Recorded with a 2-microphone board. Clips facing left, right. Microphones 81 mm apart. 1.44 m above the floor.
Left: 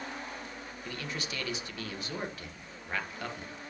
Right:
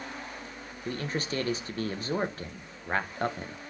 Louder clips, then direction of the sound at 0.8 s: Right 7 dB; 40° right (ahead or behind).